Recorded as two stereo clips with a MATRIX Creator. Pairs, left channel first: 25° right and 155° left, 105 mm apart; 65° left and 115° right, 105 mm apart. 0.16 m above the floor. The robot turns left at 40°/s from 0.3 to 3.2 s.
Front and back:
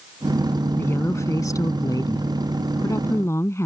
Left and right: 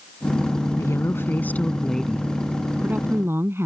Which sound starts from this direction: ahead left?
A woman speaking, at 0.8 s.